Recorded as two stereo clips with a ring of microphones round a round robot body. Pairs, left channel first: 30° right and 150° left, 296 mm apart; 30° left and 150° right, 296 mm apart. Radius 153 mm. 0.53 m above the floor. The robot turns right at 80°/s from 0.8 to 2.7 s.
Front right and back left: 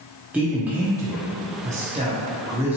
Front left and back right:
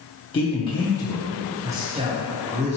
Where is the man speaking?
75° left, 0.7 m; by 2.8 s 135° right, 0.7 m.